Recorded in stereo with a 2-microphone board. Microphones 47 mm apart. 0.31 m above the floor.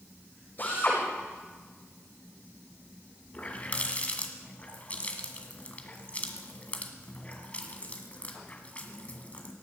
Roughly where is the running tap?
Left.